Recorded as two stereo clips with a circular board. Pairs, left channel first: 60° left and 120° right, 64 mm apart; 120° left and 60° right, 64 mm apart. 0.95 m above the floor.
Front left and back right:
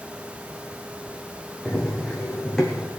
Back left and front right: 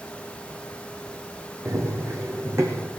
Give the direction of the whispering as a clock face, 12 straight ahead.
No whispering in this recording.